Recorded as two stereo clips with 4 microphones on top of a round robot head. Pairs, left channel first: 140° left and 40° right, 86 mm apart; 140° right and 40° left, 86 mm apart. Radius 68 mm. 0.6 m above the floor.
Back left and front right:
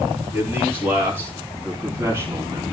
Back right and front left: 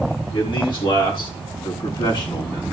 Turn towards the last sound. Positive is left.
turn(degrees=-100)